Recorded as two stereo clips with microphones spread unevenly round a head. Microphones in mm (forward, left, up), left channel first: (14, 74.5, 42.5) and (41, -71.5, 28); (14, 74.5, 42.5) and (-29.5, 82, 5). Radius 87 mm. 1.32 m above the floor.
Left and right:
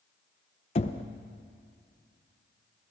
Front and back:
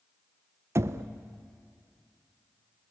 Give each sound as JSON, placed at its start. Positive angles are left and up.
{"t": 0.8, "sound": "knocking", "azimuth_deg": 155, "distance_m": 0.8}